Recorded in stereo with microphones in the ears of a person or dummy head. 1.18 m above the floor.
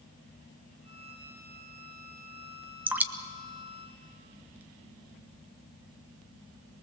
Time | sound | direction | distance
0.8 | a violin | 85° right | 7.5 m
2.9 | dripping | 15° right (ahead or behind) | 1.3 m